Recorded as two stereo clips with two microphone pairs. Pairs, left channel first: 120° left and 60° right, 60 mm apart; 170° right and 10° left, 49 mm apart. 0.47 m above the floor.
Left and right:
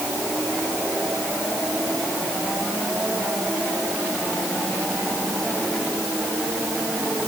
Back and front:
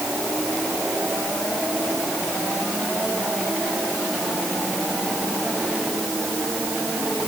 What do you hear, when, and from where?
Only background noise.